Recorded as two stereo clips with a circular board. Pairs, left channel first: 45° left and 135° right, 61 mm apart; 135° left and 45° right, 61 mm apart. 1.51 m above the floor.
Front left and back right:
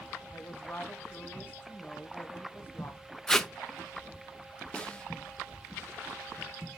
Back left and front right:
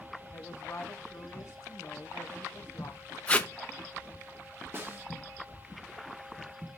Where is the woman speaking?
100° left, 1.1 m.